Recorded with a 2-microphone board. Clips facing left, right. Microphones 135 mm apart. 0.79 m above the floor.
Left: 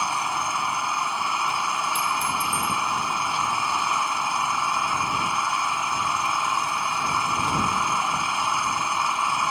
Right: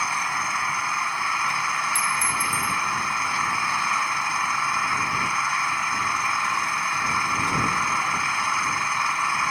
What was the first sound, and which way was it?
An engine running, 20° left (ahead or behind).